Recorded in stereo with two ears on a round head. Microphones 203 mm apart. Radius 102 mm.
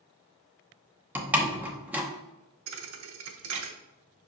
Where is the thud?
65° right (ahead or behind), 0.8 m.